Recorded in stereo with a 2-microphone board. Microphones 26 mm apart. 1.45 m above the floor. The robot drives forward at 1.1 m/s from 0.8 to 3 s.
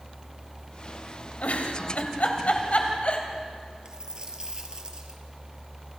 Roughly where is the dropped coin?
Right.